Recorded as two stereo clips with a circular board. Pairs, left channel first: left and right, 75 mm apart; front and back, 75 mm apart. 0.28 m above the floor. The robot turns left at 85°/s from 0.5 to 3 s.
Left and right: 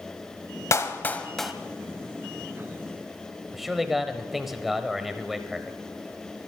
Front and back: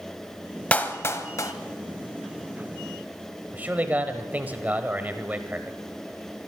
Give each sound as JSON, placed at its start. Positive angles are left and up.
{"t": 0.7, "sound": "a clap", "azimuth_deg": 65, "distance_m": 1.0}
{"t": 3.5, "sound": "a man speaking", "azimuth_deg": -175, "distance_m": 1.2}